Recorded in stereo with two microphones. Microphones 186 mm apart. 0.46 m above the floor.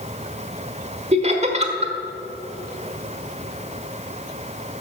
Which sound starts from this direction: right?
Laughter, at 1.1 s.